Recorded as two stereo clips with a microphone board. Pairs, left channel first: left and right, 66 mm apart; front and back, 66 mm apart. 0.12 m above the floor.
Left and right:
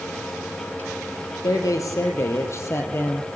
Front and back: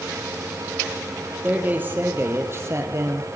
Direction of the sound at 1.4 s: 115° left.